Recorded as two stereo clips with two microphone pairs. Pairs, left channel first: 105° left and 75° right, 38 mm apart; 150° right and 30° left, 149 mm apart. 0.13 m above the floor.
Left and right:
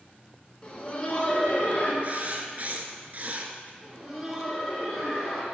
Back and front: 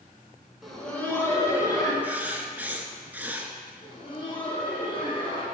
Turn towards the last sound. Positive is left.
turn(degrees=-165)